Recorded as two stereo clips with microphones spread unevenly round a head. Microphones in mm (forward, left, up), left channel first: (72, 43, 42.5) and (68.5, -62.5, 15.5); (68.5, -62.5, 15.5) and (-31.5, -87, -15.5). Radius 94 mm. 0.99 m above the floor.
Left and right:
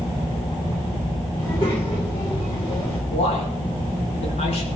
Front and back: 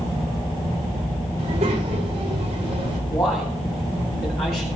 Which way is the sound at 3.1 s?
80° left.